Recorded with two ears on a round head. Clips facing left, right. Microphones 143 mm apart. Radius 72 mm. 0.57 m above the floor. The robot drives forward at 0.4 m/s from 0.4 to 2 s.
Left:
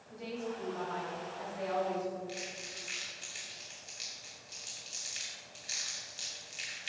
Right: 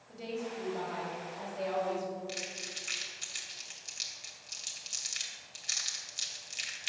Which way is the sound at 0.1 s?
25° right (ahead or behind).